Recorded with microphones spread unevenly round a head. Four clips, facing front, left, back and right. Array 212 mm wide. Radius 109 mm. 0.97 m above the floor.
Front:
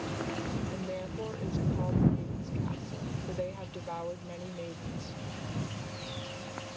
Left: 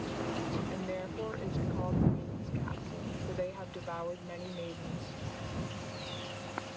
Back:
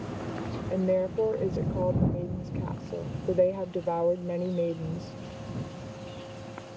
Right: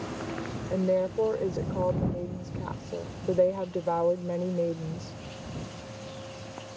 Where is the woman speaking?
135° right.